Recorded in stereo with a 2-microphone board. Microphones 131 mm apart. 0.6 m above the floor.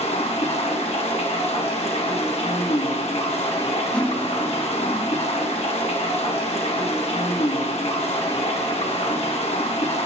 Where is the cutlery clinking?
10° left (ahead or behind), 0.6 m.